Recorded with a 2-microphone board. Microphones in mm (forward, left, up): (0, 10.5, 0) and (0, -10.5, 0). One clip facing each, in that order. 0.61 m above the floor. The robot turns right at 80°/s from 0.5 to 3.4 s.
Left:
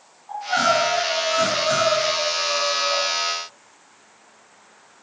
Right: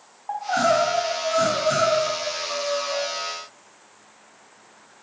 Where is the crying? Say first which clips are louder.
Left 1 dB; 85° right, 2.5 m; by 3.0 s 115° left, 2.5 m.